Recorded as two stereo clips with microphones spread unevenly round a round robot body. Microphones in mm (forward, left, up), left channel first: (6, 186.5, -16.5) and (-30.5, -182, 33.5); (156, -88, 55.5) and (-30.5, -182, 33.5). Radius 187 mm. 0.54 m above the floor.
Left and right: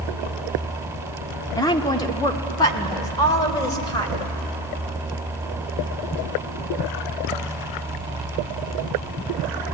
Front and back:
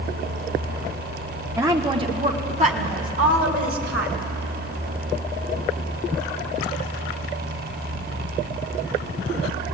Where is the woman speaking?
145° left, 1.0 m; by 4.3 s 160° left, 2.5 m.